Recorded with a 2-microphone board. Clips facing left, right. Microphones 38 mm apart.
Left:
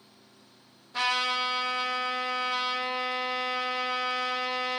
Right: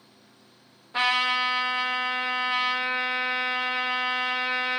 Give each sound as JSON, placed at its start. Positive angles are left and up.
{"t": 0.9, "sound": "a trumpet", "side_deg": -30, "distance_m": 1.0}